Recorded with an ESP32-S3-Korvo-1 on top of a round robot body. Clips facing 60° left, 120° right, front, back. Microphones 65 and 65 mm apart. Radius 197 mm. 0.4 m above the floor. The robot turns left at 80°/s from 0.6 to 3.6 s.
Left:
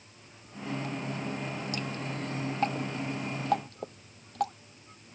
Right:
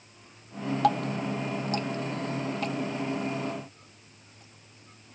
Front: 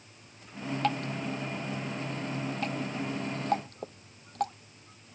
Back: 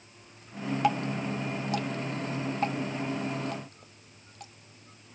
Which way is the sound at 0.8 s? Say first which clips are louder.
Right 9 dB, back 3 dB; 100° right.